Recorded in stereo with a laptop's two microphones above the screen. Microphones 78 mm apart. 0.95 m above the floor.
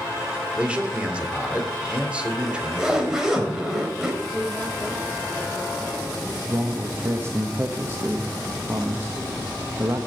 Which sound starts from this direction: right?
A man speaking, at 6.5 s.